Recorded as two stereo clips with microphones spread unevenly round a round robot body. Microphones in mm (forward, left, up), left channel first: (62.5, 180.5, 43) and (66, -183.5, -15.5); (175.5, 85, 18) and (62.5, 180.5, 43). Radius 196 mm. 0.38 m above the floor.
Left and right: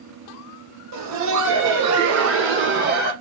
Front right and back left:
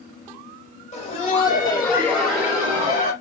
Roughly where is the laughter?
Right.